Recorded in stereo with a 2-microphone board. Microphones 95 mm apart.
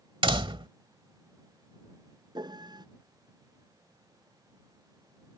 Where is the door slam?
65° right (ahead or behind).